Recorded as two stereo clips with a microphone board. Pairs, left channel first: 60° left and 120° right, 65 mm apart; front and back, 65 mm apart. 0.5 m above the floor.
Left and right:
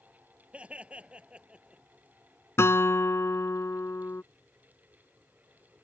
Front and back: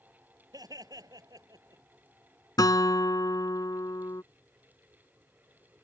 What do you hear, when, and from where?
0.5 s laughter: 170° left; by 1.8 s 165° left
2.6 s a guitar: 10° left